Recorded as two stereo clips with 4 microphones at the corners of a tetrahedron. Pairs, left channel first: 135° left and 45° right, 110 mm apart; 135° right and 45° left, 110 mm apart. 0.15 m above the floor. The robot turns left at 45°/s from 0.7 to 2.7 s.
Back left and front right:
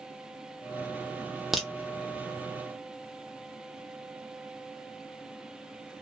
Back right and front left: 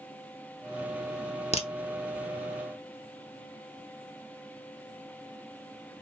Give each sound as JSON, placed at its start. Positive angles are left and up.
{"t": 1.5, "sound": "a crack", "azimuth_deg": -135, "distance_m": 0.5}